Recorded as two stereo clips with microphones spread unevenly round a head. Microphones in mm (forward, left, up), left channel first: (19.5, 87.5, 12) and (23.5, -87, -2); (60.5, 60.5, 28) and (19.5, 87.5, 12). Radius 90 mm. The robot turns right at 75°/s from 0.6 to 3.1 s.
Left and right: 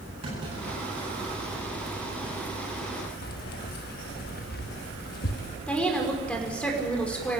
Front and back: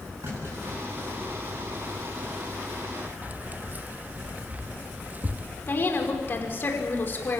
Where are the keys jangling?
85° left, 1.4 m.